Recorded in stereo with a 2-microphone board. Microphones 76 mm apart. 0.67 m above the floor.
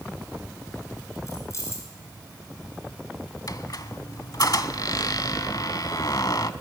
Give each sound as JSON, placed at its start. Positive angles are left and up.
{"t": 1.3, "sound": "keys jangling", "side_deg": 40, "distance_m": 5.5}
{"t": 3.5, "sound": "a squeak", "side_deg": 55, "distance_m": 0.9}